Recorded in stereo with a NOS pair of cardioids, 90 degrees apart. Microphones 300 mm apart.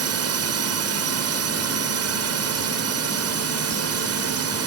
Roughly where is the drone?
Ahead right.